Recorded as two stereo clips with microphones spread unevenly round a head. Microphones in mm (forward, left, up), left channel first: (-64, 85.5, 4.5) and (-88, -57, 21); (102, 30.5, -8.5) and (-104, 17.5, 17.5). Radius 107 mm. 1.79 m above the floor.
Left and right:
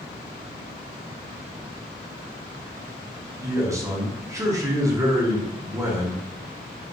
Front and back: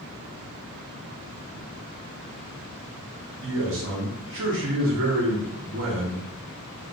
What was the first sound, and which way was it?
A man speaking, 165° right.